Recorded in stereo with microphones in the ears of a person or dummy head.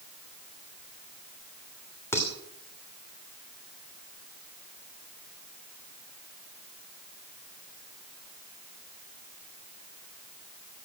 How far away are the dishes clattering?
About 3 m.